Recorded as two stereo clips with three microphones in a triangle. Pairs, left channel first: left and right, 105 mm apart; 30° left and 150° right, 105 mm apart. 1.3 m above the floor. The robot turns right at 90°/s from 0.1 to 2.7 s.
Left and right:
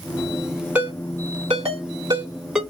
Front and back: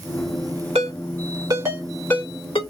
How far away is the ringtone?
About 2.5 m.